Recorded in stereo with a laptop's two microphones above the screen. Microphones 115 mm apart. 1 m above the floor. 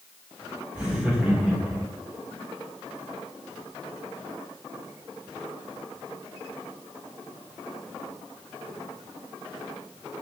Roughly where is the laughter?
Centre.